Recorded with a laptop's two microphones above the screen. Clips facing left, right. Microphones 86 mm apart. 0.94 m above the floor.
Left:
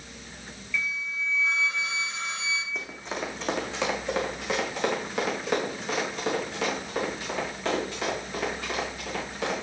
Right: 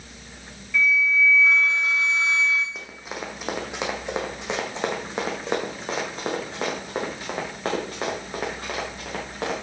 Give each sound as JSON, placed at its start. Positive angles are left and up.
{"t": 0.7, "sound": "a flute", "side_deg": -50, "distance_m": 0.9}
{"t": 2.8, "sound": "running footsteps", "side_deg": 0, "distance_m": 2.5}